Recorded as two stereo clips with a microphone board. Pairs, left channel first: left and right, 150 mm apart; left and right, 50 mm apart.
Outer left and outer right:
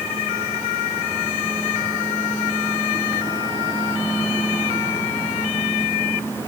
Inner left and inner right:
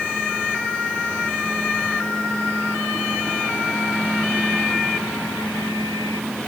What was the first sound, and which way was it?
Only background noise.